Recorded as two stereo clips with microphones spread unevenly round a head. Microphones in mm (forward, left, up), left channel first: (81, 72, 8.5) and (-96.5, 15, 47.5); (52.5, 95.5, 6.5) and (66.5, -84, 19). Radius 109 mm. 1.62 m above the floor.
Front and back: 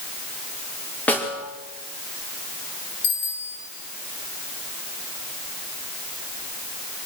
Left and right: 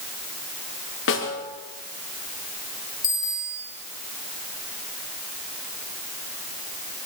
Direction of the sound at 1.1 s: 100° left.